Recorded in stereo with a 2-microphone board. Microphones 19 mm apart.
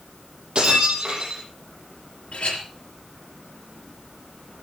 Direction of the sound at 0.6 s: 55° right (ahead or behind).